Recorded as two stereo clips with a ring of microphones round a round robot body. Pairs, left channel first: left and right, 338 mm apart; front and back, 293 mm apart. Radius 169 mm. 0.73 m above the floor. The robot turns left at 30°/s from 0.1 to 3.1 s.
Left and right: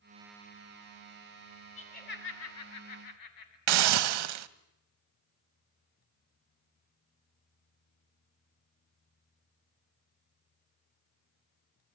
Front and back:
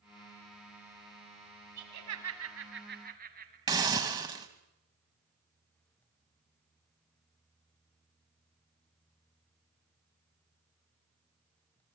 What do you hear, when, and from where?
1.8 s laughter: 160° left, 6.5 m; by 3.6 s 120° left, 6.5 m
3.7 s a hiss: 100° right, 1.2 m